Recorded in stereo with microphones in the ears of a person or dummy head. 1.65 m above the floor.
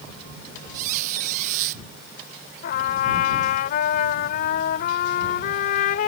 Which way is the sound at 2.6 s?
50° left (ahead or behind).